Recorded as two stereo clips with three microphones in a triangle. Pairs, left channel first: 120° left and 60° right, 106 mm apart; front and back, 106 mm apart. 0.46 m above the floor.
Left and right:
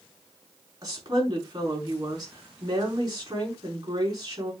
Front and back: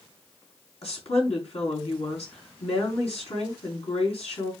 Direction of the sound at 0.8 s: 10° right.